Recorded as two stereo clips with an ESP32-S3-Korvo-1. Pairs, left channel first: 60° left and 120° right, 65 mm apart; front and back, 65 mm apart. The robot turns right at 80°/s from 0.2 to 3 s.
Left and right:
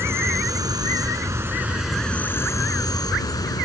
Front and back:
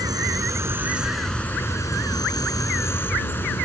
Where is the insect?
165° right; by 3.6 s 55° left.